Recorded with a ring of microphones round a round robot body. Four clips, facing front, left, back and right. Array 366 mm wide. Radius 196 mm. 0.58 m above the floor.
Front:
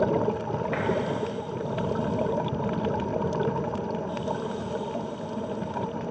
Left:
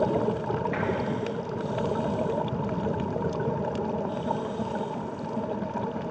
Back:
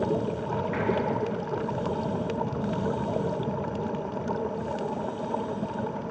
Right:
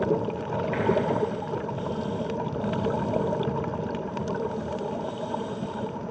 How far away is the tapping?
About 3.5 m.